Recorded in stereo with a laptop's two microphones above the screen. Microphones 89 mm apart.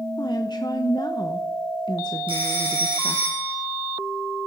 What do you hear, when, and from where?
0.2 s a woman speaking: 50° left (ahead or behind), 1.0 m
2.3 s a phone ringing: 75° right (ahead or behind), 9.5 m